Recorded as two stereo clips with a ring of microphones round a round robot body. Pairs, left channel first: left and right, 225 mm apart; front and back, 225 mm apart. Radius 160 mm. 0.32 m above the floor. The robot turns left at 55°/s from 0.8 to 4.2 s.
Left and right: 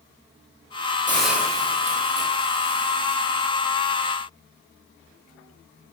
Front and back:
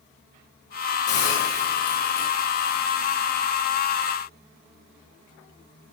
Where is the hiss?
10° left, 10 m; by 3.4 s 115° right, 10 m.